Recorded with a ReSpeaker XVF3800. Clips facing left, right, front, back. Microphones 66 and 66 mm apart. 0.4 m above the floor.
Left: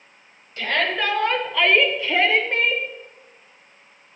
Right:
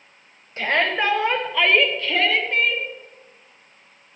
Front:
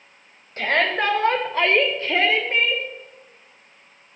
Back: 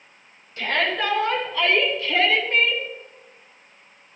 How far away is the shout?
About 1.9 m.